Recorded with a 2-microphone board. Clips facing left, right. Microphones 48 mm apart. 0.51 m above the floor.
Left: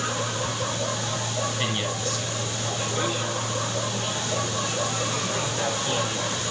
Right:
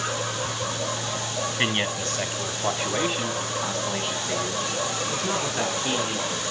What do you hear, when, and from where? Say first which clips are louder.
1.6 s a man speaking: right 2 dB; 45° right (ahead or behind), 4 m; by 6.4 s 60° right (ahead or behind), 6 m